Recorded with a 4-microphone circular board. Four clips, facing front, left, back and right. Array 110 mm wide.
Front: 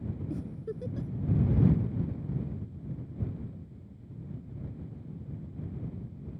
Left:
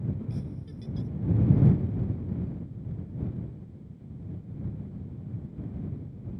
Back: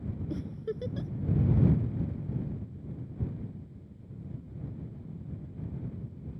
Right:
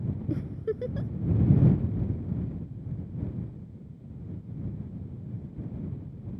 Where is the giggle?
105° right.